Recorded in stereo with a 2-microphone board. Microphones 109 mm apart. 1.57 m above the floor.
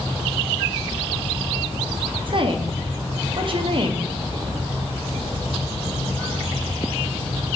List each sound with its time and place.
2.3 s a woman speaking: 50° right (ahead or behind), 1.1 m